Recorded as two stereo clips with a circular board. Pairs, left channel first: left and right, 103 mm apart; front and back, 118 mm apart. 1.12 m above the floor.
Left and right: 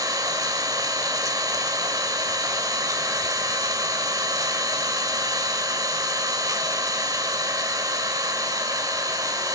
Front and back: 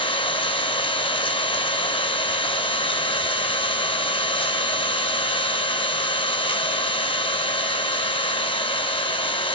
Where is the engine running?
35° right, 2.0 m.